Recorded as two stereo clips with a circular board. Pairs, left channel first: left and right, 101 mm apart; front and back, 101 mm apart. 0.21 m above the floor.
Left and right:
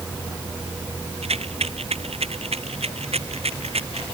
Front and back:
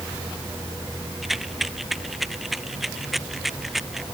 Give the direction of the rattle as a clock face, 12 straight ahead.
3 o'clock.